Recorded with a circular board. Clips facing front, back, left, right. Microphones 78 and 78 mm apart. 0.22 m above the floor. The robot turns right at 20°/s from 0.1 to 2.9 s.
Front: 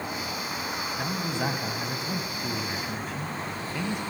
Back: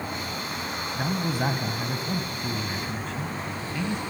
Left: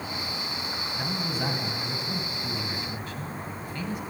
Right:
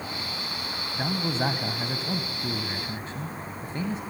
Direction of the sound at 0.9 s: 120° right.